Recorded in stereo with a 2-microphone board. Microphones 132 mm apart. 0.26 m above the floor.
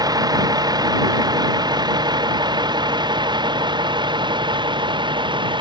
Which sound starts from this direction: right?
A vehicle, at 0.0 s.